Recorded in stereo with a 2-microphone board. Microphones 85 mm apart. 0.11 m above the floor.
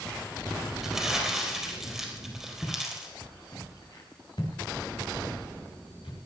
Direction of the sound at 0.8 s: 5° right (ahead or behind).